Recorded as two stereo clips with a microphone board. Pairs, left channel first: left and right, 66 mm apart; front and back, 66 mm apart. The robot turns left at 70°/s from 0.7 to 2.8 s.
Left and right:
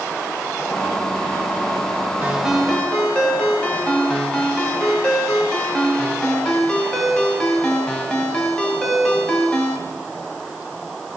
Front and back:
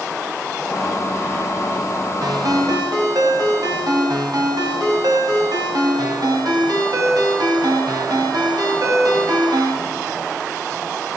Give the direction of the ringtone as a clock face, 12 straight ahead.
5 o'clock.